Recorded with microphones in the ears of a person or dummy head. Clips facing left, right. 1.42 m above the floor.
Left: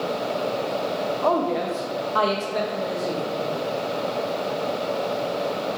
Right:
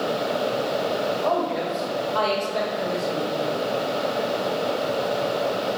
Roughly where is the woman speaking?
Left.